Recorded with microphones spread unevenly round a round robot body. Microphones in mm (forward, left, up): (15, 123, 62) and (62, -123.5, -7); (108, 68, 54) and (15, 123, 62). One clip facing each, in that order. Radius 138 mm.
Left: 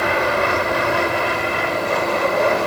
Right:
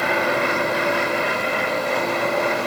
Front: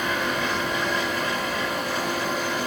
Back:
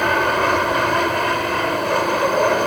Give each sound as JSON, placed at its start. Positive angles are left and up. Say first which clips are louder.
{"t": 0.0, "sound": "an aircraft", "louder": "left 2 dB, back 8 dB", "azimuth_deg": 130}